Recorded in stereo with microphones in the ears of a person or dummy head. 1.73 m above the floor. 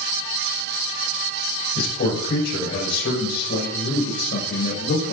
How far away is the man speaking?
About 8 m.